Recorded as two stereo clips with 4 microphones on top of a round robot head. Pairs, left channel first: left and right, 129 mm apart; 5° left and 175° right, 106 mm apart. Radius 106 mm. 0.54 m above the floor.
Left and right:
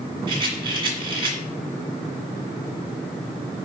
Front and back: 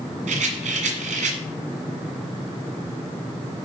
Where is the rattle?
155° right, 1.7 m.